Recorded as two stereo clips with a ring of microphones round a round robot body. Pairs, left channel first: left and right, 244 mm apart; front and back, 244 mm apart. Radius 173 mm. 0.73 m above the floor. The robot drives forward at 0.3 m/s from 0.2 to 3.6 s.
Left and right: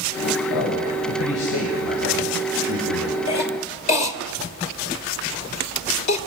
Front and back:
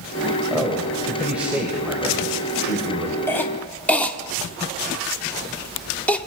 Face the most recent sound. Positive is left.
turn(degrees=85)